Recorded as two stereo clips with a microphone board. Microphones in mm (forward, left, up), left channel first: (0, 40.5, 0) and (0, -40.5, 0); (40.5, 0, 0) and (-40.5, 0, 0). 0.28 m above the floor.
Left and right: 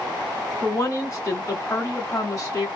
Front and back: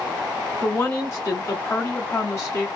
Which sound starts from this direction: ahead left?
A woman speaking, at 0.6 s.